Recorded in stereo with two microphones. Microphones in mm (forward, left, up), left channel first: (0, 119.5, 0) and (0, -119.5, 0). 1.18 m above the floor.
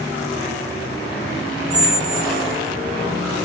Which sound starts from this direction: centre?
A squeak, at 1.7 s.